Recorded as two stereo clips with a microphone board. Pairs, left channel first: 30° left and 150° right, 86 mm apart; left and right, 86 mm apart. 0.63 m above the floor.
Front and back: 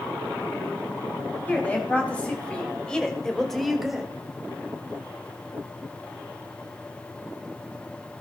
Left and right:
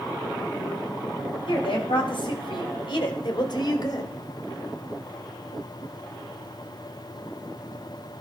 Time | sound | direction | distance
1.5 | a woman speaking | 100° left | 4 m